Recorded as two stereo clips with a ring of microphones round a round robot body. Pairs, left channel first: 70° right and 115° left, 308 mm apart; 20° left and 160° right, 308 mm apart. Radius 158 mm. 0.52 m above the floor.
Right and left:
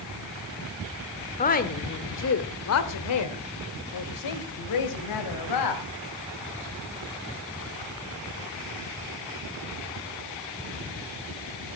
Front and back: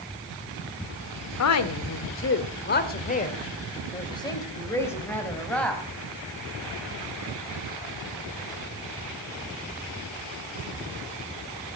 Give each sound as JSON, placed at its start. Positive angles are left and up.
{"t": 1.4, "sound": "a woman speaking", "azimuth_deg": -5, "distance_m": 1.7}